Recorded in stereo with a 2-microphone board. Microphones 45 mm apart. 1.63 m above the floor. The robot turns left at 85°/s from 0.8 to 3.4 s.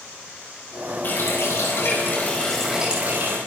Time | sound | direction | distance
1.0 | a running tap | 135° left | 6.5 m